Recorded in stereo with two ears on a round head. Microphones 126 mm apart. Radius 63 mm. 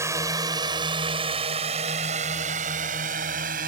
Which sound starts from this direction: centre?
A drone, at 0.0 s.